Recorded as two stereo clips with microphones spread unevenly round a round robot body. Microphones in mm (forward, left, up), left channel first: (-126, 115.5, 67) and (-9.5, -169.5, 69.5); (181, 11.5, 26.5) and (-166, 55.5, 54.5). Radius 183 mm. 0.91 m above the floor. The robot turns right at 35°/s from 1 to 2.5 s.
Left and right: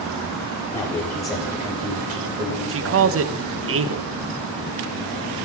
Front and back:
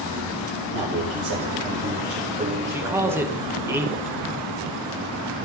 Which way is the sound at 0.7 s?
170° right.